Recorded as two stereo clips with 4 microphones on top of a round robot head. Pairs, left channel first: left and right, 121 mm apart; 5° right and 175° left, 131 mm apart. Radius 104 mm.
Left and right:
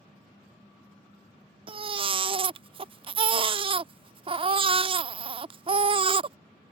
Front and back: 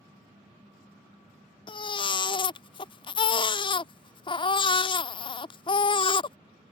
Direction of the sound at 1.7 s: 55° right.